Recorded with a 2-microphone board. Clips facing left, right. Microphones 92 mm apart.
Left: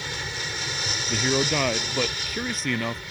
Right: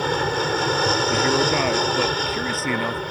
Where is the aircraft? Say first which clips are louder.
Right 12 dB; 55° right (ahead or behind).